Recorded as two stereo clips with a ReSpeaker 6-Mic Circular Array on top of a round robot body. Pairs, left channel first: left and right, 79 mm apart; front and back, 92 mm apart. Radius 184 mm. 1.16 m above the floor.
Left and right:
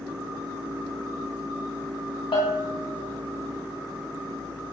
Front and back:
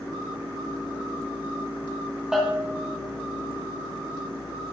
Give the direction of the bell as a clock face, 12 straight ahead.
9 o'clock.